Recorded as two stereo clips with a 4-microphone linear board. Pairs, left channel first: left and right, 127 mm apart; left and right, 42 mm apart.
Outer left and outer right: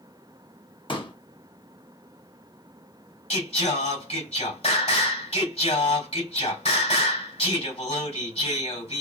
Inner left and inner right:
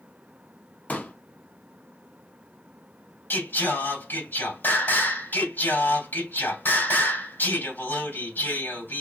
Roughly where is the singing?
Left.